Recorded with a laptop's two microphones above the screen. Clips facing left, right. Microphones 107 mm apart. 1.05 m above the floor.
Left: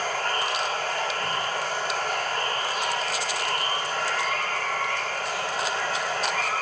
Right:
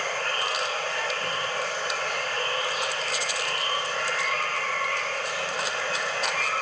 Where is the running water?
60° left (ahead or behind), 2 m.